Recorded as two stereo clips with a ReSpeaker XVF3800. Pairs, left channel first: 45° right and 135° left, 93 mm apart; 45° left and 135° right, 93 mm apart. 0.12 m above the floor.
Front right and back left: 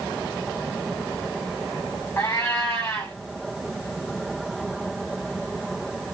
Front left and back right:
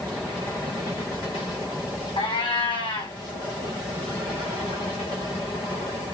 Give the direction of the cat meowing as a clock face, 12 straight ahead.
11 o'clock.